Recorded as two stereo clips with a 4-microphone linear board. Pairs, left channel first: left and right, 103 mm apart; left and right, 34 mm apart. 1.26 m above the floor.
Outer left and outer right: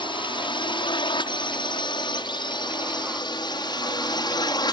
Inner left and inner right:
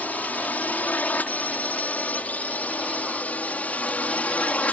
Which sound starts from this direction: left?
A drone, at 0.0 s.